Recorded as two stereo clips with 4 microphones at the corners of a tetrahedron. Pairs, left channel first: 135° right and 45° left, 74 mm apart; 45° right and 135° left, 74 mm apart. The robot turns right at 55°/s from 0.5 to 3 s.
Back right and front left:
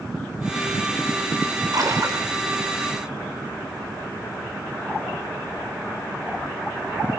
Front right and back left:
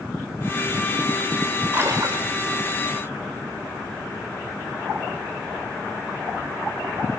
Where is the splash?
75° left, 4 m; by 2.3 s 110° left, 4 m.